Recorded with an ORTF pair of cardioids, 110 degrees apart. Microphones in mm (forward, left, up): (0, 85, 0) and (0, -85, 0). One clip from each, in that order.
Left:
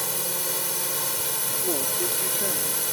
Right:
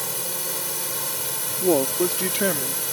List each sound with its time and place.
0.0 s a drone: 5° left
1.6 s a woman speaking: 60° right